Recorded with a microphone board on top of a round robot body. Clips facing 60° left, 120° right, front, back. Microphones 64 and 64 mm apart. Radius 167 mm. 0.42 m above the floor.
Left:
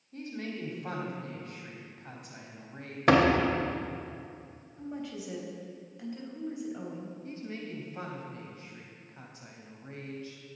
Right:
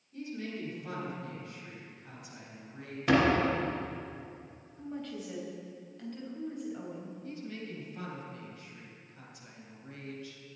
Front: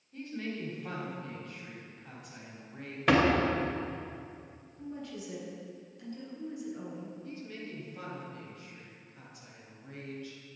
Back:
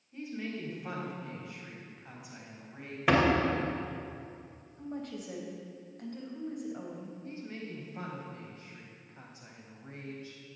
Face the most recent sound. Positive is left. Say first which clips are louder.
# even, back 1 dB
turn(degrees=120)